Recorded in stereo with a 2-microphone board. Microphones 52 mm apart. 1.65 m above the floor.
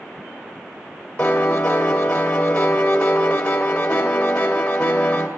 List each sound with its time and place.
1.2 s a piano: 25° left (ahead or behind), 1.9 m